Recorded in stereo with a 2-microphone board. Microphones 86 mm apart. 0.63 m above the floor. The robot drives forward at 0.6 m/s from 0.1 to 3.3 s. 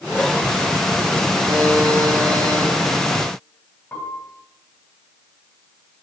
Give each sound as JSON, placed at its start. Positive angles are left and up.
{"t": 1.5, "sound": "a buzzer", "side_deg": -5, "distance_m": 8.5}
{"t": 3.9, "sound": "a piano", "side_deg": 20, "distance_m": 3.0}